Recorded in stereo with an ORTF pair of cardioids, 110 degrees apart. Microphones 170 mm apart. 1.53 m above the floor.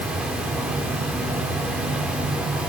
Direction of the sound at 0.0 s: 5° right.